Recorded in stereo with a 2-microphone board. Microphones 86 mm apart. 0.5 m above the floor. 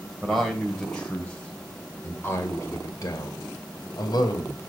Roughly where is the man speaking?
Centre.